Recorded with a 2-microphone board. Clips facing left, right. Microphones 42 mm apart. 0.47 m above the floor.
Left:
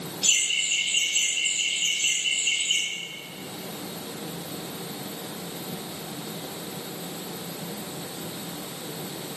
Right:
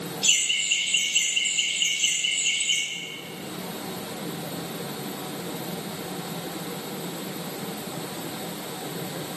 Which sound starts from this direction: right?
Laughter, at 0.2 s.